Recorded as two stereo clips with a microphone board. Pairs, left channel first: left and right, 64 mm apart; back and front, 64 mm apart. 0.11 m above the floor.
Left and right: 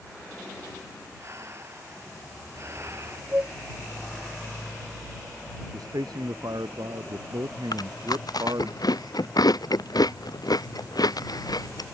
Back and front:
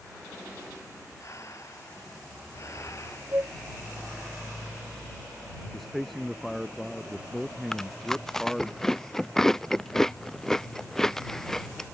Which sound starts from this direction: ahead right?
A flute, at 3.3 s.